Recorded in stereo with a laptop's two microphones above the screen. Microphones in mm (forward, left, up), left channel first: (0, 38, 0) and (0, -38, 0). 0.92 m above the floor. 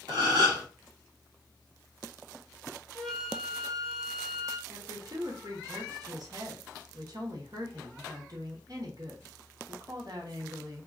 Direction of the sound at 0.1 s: 60° right (ahead or behind).